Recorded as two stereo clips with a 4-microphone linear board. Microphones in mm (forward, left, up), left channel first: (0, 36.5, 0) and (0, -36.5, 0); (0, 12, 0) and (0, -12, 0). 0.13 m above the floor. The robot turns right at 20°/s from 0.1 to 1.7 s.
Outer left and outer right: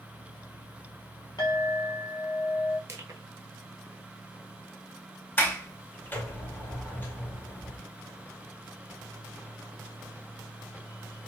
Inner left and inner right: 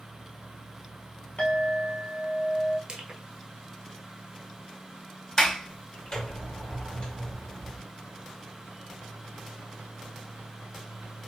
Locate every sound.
1.4 s a clink: 65° left (ahead or behind), 1.6 m
2.9 s crushing: 45° right (ahead or behind), 0.8 m
5.4 s a sliding door: 25° left (ahead or behind), 1.1 m